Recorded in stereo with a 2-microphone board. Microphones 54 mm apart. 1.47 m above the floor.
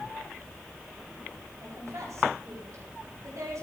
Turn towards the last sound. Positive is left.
turn(degrees=-90)